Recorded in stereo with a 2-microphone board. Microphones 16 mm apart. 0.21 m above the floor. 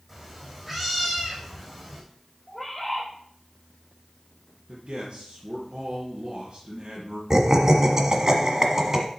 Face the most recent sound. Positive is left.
turn(degrees=-30)  # may be behind; listen again after turning